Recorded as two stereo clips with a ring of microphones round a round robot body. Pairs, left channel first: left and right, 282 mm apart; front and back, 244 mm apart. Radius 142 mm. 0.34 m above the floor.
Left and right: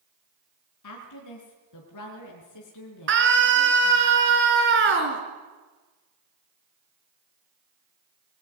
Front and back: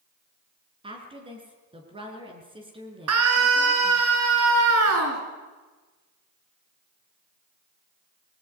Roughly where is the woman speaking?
Left.